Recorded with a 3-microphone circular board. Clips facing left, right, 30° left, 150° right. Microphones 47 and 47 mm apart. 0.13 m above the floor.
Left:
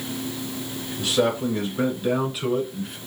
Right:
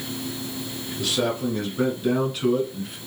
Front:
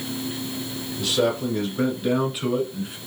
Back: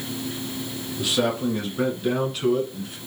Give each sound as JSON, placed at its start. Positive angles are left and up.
{"t": 1.0, "sound": "a man speaking", "azimuth_deg": 150, "distance_m": 1.4}